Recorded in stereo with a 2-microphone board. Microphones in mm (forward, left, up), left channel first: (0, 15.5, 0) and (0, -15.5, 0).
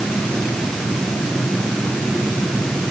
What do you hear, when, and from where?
Only background noise.